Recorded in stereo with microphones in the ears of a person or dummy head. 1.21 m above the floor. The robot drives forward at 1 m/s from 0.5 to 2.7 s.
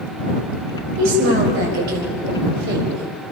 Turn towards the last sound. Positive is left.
turn(degrees=-60)  # may be behind; listen again after turning